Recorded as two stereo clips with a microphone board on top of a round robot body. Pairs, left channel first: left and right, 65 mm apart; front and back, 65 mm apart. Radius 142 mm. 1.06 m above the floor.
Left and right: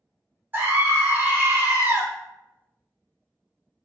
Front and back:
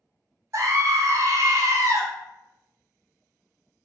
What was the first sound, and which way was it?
A scream, 145° right.